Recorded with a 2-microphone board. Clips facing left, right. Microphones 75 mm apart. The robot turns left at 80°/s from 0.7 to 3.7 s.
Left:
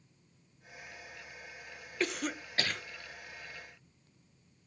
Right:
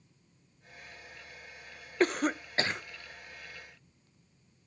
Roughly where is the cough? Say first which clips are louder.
Right 7 dB; right.